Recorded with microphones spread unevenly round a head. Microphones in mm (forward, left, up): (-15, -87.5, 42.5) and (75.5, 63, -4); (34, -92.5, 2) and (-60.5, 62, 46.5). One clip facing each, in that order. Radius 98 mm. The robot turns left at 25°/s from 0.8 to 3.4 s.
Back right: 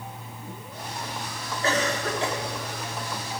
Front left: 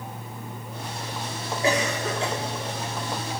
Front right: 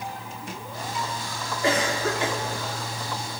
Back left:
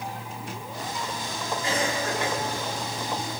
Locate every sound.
1.6 s a cough: 20° right, 3.5 m; by 2.4 s 35° right, 3.5 m